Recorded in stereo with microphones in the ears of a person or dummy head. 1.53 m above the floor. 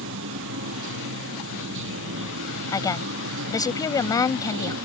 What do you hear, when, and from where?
0.0 s running water: 65° right (ahead or behind)
2.7 s a woman speaking: 20° left (ahead or behind)